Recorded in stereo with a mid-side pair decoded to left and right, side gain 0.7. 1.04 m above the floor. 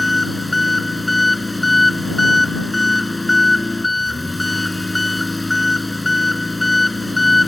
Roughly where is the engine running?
Ahead.